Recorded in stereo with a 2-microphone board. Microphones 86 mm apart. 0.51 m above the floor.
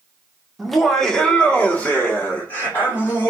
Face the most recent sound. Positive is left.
turn(degrees=25)  # may be behind; listen again after turning